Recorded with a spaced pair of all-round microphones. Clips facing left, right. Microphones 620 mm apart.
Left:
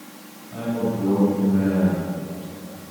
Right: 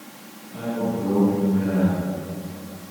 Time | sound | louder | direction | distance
0.5 | a man speaking | left 1 dB | 75° left (ahead or behind) | 6 m